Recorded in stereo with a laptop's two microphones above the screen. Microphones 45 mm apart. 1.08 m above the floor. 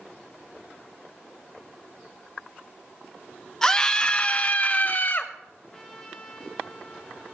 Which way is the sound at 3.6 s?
10° left (ahead or behind).